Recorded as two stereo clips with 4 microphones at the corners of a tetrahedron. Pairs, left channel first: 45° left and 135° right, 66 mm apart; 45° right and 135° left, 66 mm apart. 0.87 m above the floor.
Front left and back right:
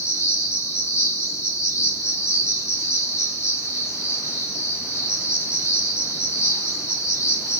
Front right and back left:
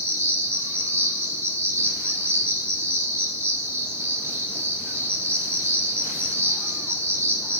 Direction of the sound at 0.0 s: 85° left.